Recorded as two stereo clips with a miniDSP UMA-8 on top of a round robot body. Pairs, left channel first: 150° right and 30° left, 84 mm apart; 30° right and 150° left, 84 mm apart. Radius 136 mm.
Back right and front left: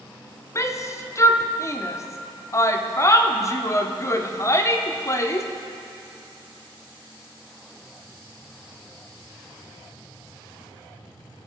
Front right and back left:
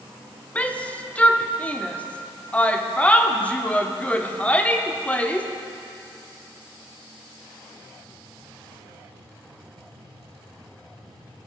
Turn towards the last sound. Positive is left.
turn(degrees=-100)